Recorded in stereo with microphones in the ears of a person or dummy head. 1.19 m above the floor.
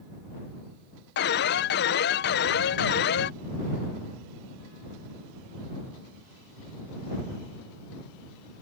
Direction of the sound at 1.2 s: 50° left (ahead or behind).